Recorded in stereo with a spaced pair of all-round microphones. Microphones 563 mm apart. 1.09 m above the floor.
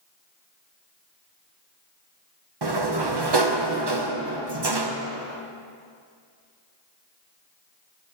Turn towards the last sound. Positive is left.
turn(degrees=-45)  # may be behind; listen again after turning